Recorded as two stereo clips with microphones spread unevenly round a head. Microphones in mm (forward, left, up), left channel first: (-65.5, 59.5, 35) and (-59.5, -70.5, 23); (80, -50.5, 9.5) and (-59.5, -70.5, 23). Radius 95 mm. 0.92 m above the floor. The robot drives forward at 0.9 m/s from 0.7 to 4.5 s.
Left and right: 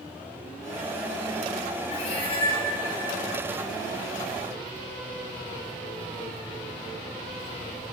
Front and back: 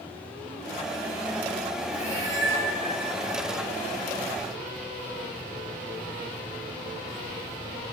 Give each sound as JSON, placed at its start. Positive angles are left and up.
{"t": 1.9, "sound": "a cat meowing", "azimuth_deg": 130, "distance_m": 2.5}